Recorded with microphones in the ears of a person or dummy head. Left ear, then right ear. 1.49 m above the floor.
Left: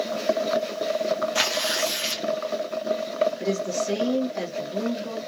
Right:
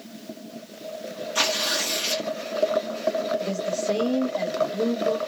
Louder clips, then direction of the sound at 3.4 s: Even; 65° left (ahead or behind).